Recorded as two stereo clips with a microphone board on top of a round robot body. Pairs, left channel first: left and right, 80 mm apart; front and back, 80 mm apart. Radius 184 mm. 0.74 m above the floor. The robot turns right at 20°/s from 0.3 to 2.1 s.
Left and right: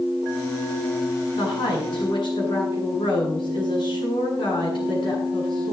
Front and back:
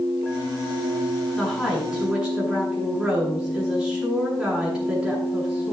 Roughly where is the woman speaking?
Left.